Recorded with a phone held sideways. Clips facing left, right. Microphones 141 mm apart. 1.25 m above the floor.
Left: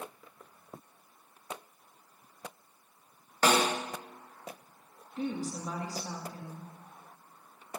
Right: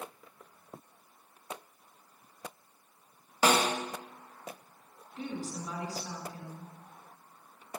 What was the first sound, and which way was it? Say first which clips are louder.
A snare drum: even; 10° right (ahead or behind).